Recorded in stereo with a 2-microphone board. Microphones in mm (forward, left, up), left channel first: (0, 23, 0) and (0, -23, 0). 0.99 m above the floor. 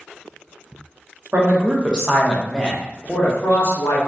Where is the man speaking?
40° right (ahead or behind), 0.8 m; by 4.0 s 55° left (ahead or behind), 1.1 m.